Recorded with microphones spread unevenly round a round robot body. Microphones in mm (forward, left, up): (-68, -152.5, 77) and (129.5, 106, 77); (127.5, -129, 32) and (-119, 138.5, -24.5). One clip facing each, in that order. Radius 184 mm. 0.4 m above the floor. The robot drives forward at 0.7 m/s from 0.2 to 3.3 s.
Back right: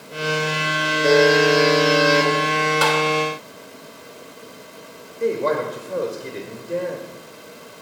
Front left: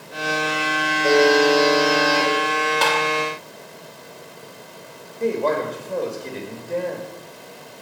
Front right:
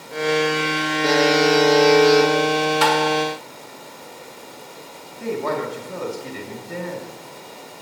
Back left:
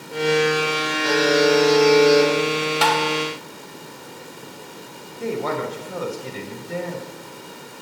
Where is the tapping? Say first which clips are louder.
Back right 3 dB, front right 3 dB; 155° left, 2 m.